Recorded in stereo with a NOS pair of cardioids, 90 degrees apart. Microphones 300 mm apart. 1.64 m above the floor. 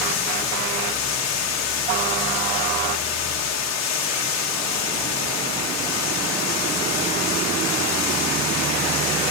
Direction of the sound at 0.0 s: 60° left.